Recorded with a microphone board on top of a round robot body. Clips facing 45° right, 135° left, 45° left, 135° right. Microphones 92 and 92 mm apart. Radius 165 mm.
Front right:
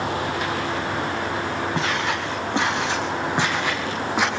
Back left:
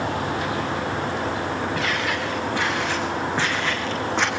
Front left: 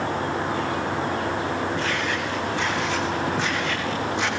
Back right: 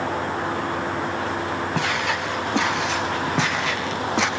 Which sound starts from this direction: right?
Footsteps, at 1.8 s.